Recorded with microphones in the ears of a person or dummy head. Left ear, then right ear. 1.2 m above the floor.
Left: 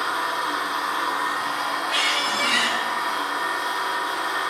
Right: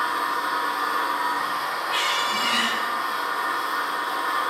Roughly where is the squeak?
Centre.